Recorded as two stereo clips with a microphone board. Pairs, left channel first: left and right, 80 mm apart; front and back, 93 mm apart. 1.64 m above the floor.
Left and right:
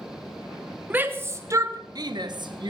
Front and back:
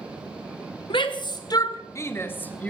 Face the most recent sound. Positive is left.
turn(degrees=-75)